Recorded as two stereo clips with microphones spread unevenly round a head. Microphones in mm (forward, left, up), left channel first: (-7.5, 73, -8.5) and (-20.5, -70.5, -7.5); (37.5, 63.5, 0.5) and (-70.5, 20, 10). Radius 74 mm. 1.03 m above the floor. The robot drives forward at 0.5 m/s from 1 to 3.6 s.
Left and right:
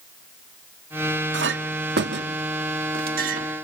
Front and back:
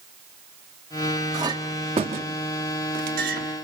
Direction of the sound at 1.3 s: 90° right.